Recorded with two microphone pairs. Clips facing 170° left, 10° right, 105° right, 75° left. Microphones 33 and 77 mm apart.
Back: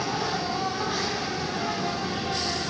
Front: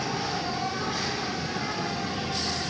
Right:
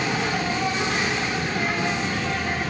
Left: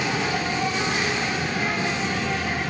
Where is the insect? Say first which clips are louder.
Back 2 dB, even; 160° left, 1.2 m.